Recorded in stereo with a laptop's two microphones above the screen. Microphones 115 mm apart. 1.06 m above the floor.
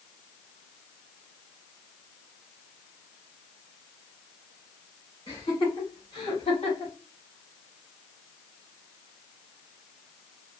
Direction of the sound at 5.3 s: 35° left (ahead or behind).